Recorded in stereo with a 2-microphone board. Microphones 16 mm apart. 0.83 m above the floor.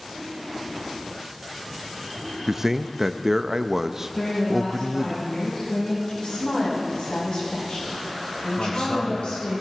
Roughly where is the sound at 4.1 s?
Left.